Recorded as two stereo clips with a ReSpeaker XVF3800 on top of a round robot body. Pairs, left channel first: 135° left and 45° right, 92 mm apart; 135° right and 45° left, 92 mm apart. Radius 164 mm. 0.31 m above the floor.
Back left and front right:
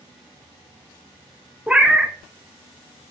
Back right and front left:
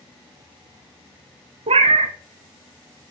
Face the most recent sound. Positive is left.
turn(degrees=35)